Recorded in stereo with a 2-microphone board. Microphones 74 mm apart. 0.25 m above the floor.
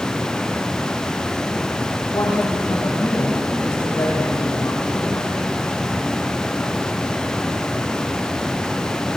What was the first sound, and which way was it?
A woman speaking, 60° left (ahead or behind).